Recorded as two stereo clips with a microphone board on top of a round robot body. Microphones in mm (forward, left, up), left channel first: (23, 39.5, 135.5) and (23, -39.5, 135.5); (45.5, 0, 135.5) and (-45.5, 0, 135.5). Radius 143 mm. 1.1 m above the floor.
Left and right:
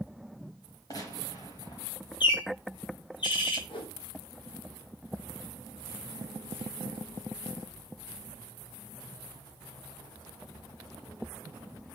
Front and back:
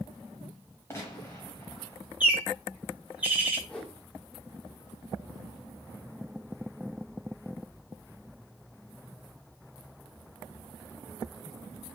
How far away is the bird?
About 3.5 m.